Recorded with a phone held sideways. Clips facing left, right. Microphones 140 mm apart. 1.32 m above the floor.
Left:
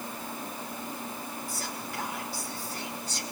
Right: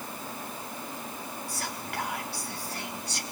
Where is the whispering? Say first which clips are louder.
Right 1 dB; 70° right (ahead or behind), 4 m.